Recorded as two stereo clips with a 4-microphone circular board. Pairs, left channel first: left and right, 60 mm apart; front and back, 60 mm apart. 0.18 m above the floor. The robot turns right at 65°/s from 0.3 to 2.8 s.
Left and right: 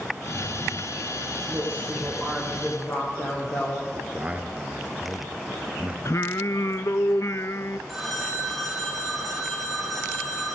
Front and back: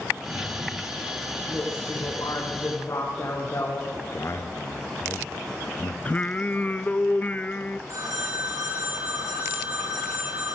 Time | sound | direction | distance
1.5 | a woman speaking | 45° right | 8.5 m
3.9 | a man speaking | 30° right | 2.5 m
6.0 | singing | 60° left | 0.7 m
7.9 | a phone ringing | straight behind | 8 m